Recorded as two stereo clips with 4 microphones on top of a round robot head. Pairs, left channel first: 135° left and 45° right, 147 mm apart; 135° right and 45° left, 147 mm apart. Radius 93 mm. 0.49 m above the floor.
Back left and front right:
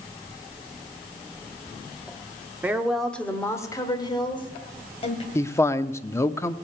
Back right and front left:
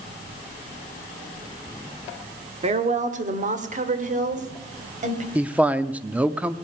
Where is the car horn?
No car horn in this recording.